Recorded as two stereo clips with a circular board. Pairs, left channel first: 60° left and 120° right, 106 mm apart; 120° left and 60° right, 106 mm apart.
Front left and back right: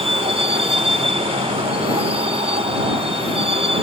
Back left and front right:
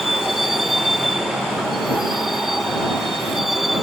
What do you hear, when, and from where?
0.0 s a vehicle: 150° right